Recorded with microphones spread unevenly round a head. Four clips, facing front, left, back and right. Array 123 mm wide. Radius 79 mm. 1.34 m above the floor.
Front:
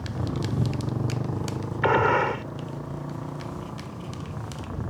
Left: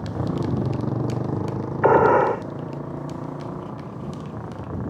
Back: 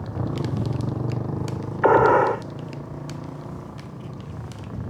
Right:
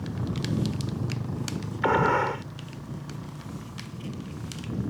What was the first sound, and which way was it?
A motorcycle, 105° left.